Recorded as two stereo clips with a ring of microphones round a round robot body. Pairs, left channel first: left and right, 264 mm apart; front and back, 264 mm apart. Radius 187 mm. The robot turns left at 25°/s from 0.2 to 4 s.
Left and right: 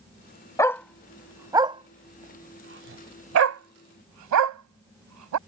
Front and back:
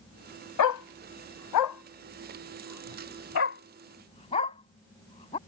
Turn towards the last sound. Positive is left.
turn(degrees=-75)